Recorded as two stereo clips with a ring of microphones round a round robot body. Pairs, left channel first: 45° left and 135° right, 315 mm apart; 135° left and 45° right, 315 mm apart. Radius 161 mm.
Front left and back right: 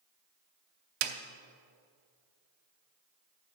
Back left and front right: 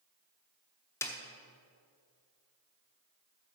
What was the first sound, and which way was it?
A snare drum, 145° right.